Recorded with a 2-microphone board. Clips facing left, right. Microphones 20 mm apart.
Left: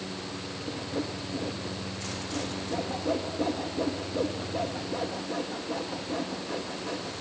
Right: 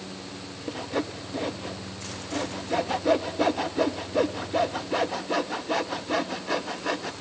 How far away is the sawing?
About 1.1 m.